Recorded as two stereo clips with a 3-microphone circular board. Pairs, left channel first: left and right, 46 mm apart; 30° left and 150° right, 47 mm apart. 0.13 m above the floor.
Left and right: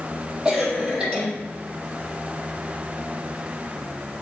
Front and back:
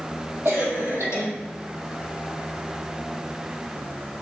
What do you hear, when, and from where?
0.5 s a cough: 165° right, 3.5 m